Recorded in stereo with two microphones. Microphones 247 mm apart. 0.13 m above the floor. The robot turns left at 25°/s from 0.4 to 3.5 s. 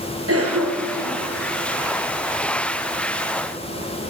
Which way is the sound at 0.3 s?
60° right (ahead or behind).